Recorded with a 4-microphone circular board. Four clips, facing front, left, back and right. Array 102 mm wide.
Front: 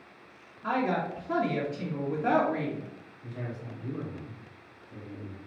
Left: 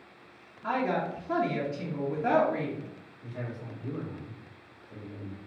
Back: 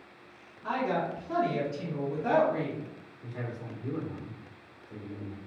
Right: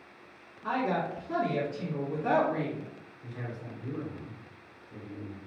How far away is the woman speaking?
About 1.2 m.